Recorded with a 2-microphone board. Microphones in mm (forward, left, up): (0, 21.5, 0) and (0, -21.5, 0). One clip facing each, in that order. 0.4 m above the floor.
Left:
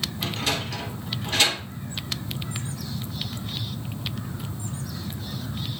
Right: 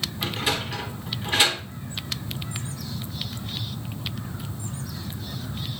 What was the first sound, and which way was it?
A sliding door, 20° right (ahead or behind).